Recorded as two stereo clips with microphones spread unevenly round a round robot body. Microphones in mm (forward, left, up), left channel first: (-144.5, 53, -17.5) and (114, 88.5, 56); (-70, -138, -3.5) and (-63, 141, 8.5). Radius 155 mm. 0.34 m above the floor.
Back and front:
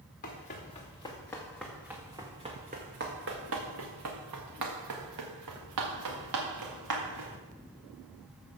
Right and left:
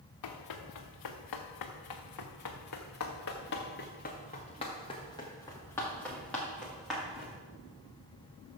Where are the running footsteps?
105° right, 1.6 m; by 7.4 s straight ahead, 3 m.